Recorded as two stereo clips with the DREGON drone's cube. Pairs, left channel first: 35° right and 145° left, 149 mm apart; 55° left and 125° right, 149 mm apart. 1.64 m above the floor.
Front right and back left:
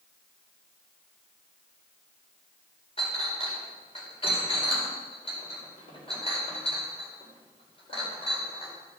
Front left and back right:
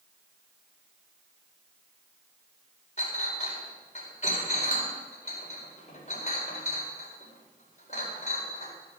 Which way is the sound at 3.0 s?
15° left.